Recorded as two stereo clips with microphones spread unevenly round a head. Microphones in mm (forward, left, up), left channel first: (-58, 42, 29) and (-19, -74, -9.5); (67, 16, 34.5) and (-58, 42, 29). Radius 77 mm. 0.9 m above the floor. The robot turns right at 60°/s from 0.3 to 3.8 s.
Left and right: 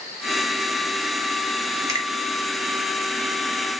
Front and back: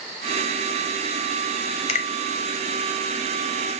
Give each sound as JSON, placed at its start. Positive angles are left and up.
{"t": 1.9, "sound": "a finger snap", "azimuth_deg": -30, "distance_m": 0.6}